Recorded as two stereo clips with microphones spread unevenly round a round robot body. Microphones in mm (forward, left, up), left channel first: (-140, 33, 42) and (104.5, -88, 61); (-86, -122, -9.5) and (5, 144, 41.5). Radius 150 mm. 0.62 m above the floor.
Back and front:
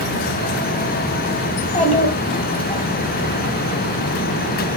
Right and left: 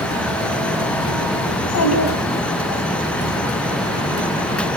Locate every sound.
1.5 s a child speaking: 140° right, 4 m; by 2.8 s 135° right, 5 m